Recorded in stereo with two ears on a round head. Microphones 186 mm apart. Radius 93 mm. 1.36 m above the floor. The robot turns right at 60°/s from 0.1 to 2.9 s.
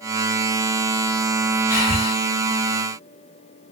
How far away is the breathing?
About 1.2 m.